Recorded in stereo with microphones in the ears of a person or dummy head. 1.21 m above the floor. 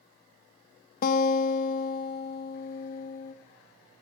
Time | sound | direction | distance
1.0 | a guitar | 55° left (ahead or behind) | 0.7 m